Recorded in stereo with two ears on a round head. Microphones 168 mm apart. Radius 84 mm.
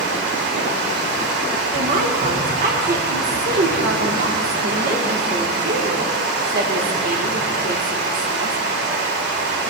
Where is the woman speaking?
45° right (ahead or behind), 1.5 m.